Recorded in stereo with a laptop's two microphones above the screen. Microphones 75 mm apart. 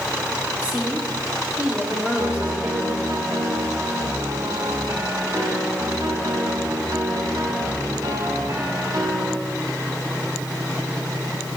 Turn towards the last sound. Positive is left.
turn(degrees=-60)  # may be behind; listen again after turning